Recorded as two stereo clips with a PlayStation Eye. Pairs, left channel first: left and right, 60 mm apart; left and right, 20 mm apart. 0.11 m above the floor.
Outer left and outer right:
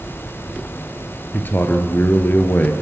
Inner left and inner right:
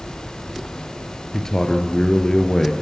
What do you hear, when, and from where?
1.3 s a man speaking: 35° left (ahead or behind), 2 m